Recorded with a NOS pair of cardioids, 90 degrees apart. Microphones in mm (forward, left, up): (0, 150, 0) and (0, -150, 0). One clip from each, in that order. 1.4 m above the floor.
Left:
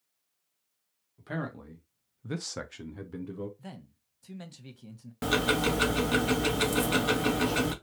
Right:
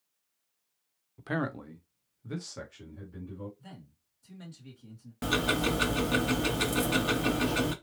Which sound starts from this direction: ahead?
Ticking, at 5.2 s.